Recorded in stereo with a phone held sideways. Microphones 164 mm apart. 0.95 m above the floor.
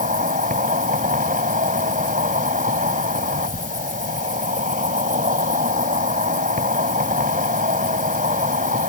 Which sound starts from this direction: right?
An insect, at 0.0 s.